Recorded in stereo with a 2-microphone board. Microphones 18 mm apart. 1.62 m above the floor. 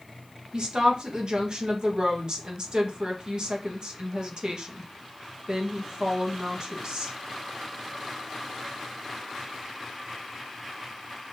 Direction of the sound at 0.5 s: 45° right (ahead or behind).